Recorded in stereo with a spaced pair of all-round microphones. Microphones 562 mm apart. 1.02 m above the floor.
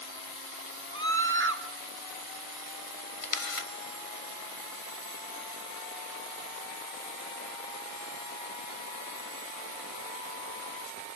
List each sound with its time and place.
0.9 s a scream: 20° right (ahead or behind), 3 m
3.2 s a camera shutter: 65° left (ahead or behind), 1.4 m